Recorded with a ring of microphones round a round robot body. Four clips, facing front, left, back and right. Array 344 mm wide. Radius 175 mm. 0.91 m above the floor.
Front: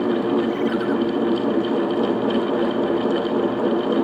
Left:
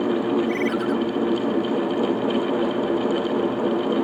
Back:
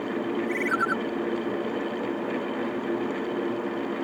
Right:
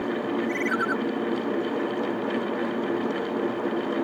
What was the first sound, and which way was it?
A ringtone, 170° left.